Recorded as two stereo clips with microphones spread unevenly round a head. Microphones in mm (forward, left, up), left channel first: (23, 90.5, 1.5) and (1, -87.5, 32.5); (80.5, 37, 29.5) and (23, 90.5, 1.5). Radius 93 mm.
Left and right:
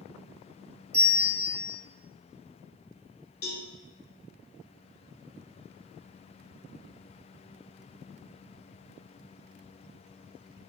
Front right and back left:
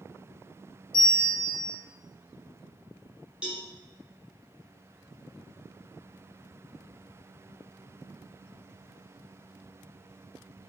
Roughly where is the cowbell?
Ahead left.